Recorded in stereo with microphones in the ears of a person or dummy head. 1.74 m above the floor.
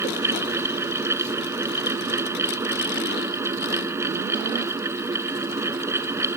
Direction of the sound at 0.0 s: 15° right (ahead or behind).